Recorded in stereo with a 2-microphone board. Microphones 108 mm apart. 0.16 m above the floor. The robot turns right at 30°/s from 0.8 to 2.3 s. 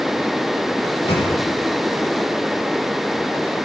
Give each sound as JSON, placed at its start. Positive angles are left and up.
{"t": 0.8, "sound": "a microwave", "side_deg": 50, "distance_m": 4.5}